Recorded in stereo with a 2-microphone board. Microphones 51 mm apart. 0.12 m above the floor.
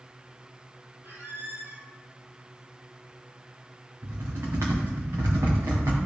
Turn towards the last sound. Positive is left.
turn(degrees=-85)